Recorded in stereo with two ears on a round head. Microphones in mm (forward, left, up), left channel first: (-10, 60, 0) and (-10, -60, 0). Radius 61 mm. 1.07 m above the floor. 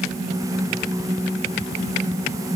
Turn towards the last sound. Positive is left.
No sound to turn to.